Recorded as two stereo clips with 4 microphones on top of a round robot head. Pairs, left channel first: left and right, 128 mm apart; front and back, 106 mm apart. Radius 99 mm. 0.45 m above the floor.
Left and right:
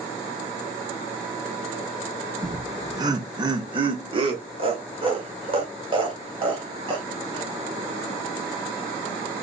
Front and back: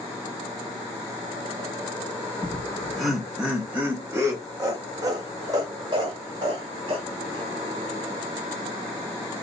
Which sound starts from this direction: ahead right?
Laughter, at 2.4 s.